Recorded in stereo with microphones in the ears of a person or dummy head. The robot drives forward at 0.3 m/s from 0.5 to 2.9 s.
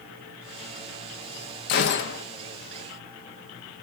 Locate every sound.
1.7 s a gunshot: 55° left (ahead or behind), 0.7 m; by 2.2 s 50° left (ahead or behind), 0.7 m